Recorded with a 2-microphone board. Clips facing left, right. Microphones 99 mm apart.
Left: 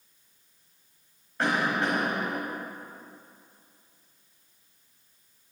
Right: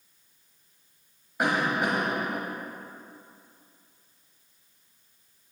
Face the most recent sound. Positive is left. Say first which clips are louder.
# right 1 dB
turn(degrees=-15)  # may be behind; listen again after turning